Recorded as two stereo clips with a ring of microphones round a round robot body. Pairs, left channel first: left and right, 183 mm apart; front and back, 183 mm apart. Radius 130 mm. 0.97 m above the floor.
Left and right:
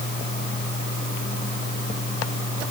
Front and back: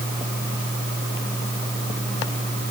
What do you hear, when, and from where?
Only background noise.